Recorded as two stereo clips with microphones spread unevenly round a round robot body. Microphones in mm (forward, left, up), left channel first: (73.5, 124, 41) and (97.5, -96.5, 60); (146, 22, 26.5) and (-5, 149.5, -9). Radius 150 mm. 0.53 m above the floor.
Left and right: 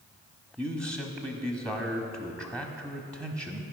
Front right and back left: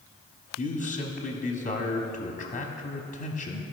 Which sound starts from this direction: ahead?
A man speaking, at 0.6 s.